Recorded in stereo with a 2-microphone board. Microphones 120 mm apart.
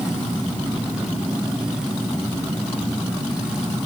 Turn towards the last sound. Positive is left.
No sound to turn to.